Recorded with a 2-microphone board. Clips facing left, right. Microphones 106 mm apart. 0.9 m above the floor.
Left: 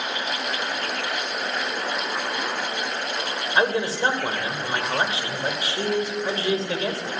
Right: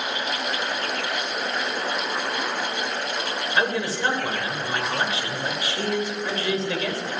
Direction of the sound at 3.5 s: 30° left (ahead or behind).